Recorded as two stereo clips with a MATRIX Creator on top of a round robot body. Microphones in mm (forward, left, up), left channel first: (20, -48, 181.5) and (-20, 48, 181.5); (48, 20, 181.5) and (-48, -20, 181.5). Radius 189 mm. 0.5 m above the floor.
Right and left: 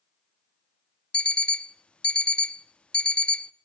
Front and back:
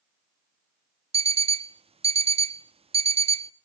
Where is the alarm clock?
145° right, 0.7 m.